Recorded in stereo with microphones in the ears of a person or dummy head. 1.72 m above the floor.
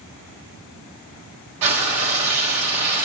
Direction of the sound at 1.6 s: 30° right (ahead or behind).